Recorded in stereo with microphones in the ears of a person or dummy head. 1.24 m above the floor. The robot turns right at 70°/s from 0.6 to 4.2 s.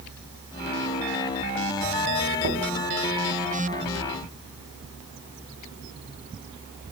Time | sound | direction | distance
2.4 | knocking | 80° right | 3.5 m